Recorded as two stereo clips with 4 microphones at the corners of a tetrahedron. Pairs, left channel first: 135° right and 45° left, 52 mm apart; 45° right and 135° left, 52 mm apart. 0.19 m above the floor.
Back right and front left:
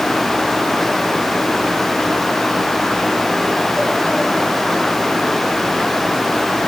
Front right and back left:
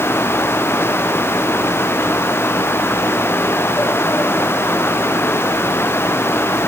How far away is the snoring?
I don't hear snoring.